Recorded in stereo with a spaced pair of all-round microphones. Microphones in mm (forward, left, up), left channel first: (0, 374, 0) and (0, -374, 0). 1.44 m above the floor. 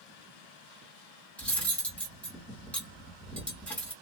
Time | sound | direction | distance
1.4 | cutlery clinking | centre (ahead or behind) | 1.5 m